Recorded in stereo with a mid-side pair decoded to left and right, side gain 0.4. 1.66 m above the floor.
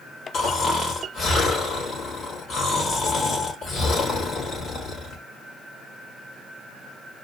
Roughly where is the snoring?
Left.